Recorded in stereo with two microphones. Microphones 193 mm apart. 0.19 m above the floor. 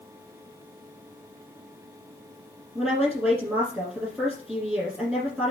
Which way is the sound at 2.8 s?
5° right (ahead or behind).